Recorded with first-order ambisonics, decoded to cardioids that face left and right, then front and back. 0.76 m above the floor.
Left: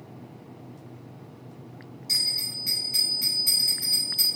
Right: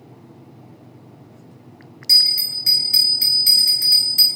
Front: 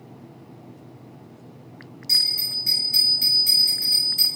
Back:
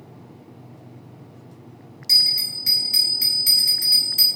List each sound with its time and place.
2.1 s a bell: 110° right, 2 m